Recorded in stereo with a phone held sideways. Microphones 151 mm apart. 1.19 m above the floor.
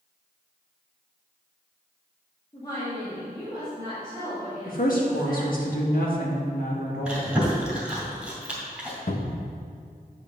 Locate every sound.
2.5 s a woman speaking: 25° left (ahead or behind), 1.7 m; by 5.6 s 35° left (ahead or behind), 5 m
4.7 s a woman speaking: 65° left (ahead or behind), 1.7 m
7.0 s chewing: 5° right (ahead or behind), 2 m
9.1 s a cupboard door: 60° left (ahead or behind), 0.8 m